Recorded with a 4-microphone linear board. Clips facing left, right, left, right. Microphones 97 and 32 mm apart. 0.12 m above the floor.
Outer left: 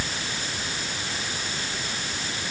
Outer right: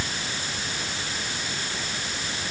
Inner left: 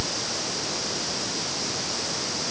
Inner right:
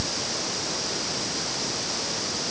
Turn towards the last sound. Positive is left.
No sound to turn to.